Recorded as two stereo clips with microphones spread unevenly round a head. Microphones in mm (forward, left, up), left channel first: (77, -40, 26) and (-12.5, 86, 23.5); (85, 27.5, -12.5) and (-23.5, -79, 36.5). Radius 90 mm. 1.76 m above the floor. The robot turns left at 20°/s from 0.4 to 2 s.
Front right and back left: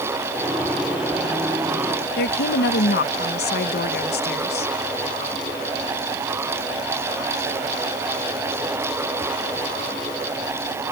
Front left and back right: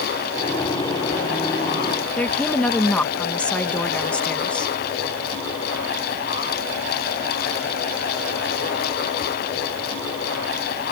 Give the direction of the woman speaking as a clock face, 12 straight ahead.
1 o'clock.